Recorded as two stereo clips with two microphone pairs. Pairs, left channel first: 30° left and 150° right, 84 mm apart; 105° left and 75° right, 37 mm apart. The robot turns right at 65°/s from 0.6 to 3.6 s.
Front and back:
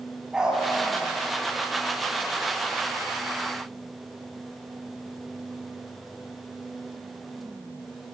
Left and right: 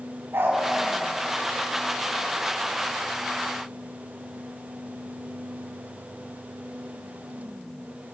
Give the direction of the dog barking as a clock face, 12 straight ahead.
2 o'clock.